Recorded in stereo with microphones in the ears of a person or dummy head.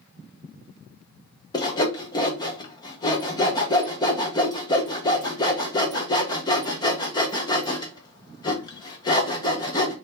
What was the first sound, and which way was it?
Sawing, 20° left (ahead or behind).